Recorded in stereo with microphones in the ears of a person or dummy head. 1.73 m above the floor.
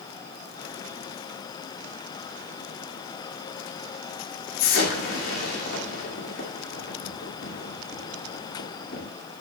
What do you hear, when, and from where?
4.6 s an explosion: 70° left (ahead or behind), 3 m